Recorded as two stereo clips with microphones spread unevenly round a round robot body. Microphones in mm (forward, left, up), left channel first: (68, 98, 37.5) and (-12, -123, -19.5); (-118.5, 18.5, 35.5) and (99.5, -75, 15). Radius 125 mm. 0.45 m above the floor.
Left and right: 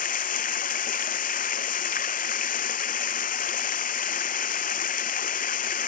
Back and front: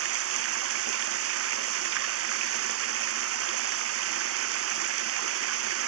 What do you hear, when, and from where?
0.0 s running water: 15° left